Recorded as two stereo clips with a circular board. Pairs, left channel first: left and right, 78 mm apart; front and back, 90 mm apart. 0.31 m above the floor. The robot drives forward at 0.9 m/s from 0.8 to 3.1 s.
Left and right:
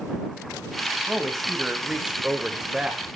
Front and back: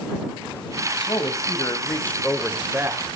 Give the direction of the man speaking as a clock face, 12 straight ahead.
12 o'clock.